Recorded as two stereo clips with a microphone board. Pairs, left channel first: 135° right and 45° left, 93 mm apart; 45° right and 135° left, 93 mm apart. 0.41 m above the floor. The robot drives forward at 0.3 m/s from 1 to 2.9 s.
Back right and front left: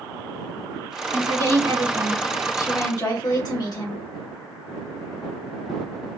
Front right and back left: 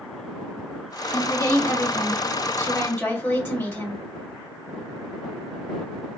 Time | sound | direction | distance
1.1 | a woman speaking | 90° right | 1.8 m